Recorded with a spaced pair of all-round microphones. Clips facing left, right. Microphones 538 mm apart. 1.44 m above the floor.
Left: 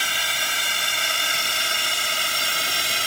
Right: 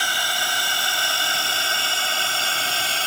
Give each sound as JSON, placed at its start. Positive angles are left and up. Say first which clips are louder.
{"t": 0.0, "sound": "a drone", "louder": "right 4 dB", "side_deg": 45}